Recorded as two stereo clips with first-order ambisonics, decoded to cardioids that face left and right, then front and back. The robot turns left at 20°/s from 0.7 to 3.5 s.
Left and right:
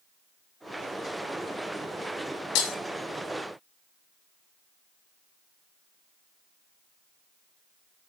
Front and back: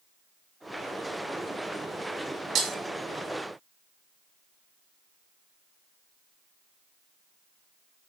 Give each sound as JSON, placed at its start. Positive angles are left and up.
{"t": 2.5, "sound": "breaking glass", "azimuth_deg": 120, "distance_m": 2.5}